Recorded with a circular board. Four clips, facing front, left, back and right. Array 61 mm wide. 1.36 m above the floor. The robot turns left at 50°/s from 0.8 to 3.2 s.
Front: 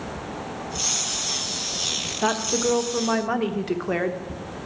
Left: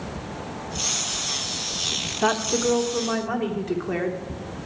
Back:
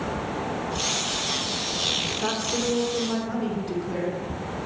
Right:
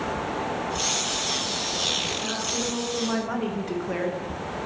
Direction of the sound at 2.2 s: 55° left.